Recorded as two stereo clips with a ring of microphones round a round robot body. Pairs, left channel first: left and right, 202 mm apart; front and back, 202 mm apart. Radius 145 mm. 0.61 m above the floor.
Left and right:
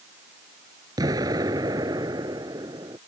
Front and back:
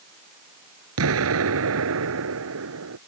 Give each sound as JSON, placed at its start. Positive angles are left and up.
{"t": 1.0, "sound": "an explosion", "azimuth_deg": -170}